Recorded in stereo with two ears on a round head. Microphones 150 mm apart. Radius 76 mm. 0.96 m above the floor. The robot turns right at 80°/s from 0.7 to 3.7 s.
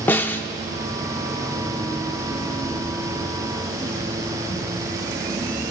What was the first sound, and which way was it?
A snare drum, 10° left (ahead or behind).